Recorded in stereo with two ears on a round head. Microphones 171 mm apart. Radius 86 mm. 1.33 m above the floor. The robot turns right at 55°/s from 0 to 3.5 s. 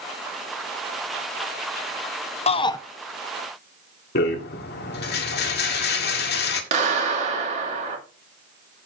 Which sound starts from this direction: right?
A clap, at 6.7 s.